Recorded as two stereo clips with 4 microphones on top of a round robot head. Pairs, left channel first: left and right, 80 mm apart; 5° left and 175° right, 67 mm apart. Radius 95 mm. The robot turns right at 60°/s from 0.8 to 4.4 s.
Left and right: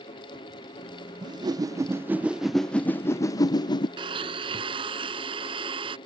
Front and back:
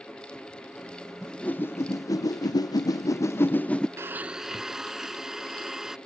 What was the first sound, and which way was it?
A whoosh, 80° right.